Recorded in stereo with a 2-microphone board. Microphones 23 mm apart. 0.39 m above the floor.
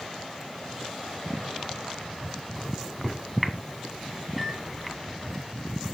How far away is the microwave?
About 2.5 m.